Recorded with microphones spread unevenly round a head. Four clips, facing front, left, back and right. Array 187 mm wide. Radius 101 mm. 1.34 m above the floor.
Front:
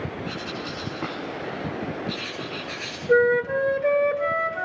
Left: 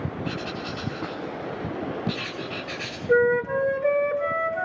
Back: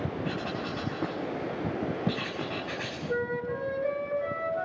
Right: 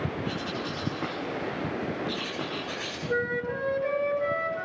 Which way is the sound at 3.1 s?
30° left.